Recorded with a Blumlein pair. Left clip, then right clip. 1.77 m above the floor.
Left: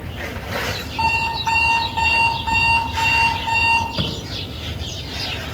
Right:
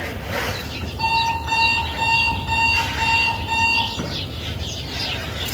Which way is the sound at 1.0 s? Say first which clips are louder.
Even; 55° left.